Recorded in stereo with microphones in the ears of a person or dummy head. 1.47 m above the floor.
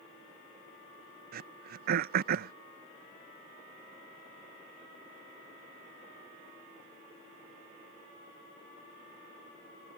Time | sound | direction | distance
1.3 | throat clearing | 50° right (ahead or behind) | ?